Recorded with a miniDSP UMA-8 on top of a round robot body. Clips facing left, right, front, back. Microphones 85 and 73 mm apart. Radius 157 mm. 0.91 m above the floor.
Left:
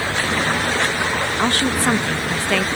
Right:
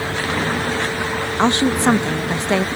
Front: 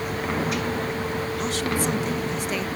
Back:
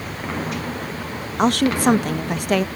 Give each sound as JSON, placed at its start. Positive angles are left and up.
{"t": 1.4, "sound": "a woman speaking", "azimuth_deg": -155}